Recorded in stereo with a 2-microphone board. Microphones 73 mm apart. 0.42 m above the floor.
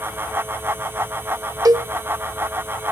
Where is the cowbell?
60° right (ahead or behind), 0.8 m.